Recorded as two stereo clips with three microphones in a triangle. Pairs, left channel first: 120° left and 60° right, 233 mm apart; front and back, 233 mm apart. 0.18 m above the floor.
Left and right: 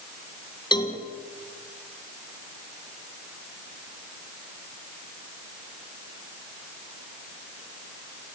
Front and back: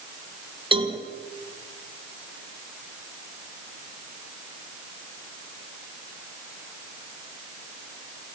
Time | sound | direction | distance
0.7 | a cowbell | 155° left | 1.7 m